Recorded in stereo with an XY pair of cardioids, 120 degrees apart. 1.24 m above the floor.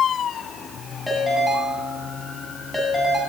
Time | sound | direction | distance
1.1 | a ringtone | 5° left | 8.5 m